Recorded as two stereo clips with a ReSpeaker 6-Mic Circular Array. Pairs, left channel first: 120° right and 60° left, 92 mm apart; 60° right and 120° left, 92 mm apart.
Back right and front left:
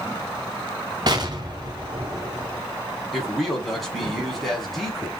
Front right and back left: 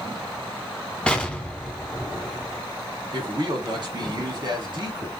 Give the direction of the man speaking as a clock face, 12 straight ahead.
7 o'clock.